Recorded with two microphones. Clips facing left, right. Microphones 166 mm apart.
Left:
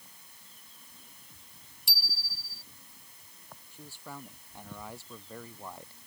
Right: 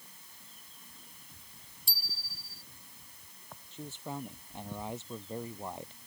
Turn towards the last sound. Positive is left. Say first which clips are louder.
# right 6 dB
turn(degrees=-20)  # may be behind; listen again after turning